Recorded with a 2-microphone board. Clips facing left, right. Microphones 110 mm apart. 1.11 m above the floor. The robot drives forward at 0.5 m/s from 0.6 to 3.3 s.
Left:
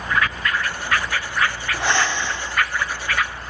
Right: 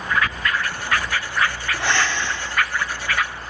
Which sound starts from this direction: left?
Breathing, at 1.7 s.